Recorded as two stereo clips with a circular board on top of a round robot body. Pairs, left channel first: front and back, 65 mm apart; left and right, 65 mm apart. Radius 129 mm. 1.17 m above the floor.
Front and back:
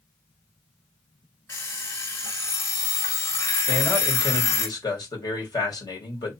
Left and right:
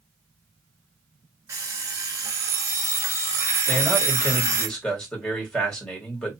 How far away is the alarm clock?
About 1.7 m.